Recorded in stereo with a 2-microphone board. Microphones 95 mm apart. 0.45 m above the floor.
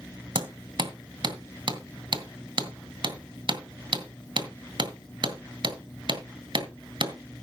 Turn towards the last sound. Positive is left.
turn(degrees=-55)  # may be behind; listen again after turning